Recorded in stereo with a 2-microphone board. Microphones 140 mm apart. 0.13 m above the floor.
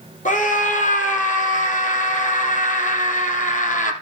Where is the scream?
65° left (ahead or behind), 3.5 m.